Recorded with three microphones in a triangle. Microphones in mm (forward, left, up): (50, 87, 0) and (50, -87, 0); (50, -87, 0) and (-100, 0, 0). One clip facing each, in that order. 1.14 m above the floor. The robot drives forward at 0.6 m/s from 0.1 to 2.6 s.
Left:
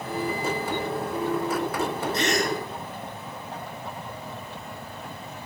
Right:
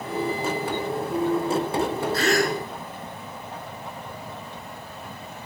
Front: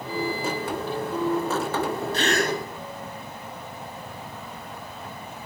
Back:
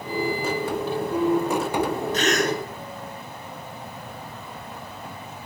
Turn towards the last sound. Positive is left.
turn(degrees=25)